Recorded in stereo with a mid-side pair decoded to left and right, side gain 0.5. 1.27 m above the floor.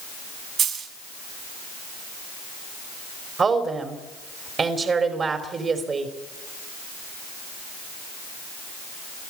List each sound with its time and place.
0.6 s a dropped coin: 65° right, 5.5 m
3.4 s a woman speaking: 40° right, 3.5 m